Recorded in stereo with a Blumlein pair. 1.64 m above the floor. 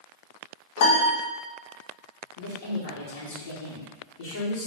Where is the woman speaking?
55° left, 1.2 m.